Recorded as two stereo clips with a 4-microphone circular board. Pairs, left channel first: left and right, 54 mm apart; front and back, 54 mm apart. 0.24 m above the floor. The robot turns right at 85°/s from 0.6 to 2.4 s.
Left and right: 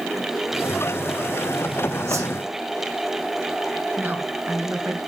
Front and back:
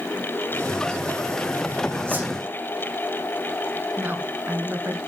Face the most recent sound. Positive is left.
turn(degrees=-135)